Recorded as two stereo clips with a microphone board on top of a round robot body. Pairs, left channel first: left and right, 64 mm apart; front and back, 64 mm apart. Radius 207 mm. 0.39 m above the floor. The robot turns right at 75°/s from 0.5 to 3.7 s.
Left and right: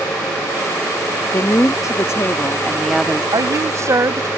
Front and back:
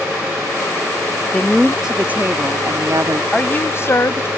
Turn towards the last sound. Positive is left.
turn(degrees=-50)